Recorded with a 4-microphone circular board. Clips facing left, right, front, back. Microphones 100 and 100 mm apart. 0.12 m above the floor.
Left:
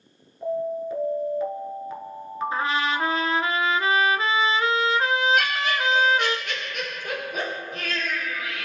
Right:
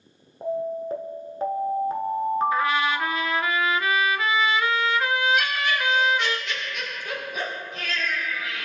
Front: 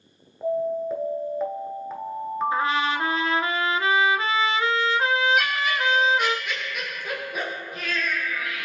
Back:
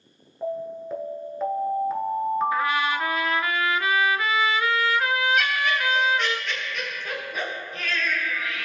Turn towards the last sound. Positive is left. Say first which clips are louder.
# left 1 dB, even
turn(degrees=80)